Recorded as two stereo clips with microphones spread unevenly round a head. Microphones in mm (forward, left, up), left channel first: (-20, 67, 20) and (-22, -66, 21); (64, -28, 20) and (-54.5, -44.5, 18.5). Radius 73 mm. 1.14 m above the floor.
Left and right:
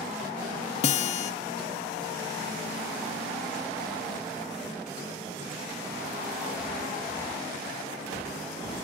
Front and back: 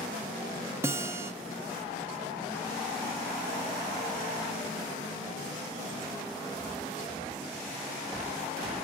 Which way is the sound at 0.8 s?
115° left.